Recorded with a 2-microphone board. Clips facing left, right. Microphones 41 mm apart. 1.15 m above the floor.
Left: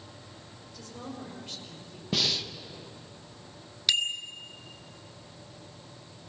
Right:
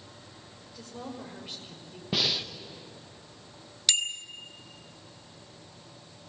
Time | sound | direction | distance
0.7 | a woman speaking | 10° right (ahead or behind) | 5.5 m
2.1 | breathing | 10° right (ahead or behind) | 1.3 m
3.9 | a bicycle bell | 10° left (ahead or behind) | 2 m